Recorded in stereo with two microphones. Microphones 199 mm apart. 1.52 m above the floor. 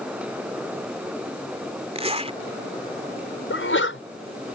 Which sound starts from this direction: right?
A zipper, at 1.9 s.